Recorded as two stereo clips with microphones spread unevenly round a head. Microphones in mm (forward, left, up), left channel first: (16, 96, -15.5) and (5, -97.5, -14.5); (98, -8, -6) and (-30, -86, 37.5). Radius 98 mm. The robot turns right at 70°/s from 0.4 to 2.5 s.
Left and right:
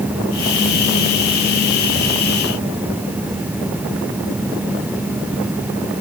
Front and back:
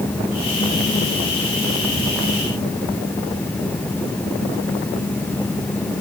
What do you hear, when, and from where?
Only background noise.